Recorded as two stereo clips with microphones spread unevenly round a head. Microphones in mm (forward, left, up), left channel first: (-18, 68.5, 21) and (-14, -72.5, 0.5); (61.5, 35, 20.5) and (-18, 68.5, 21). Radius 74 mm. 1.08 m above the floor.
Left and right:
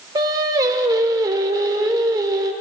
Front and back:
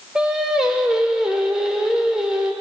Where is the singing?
130° right, 0.7 m.